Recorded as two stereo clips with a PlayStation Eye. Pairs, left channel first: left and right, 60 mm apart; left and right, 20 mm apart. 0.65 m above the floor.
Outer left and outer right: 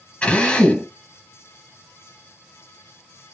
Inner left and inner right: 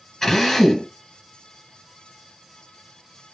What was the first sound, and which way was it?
A drill, 15° left (ahead or behind).